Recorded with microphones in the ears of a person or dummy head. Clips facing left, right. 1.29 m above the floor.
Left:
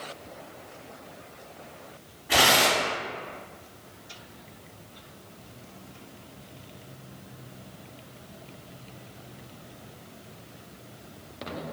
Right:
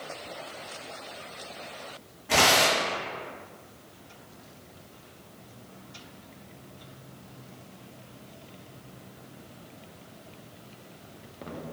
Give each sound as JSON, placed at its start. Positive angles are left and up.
{"t": 2.3, "sound": "tearing paper", "side_deg": -55, "distance_m": 1.6}